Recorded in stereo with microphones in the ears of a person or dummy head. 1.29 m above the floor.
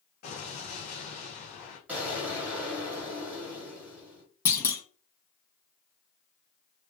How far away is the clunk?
About 0.5 m.